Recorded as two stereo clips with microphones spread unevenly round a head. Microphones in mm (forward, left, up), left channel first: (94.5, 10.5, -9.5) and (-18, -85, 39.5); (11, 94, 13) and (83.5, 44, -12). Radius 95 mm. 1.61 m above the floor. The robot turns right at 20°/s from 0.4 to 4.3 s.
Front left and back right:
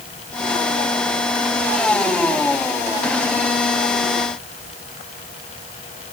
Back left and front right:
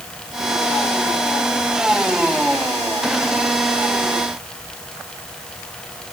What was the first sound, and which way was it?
Only background noise.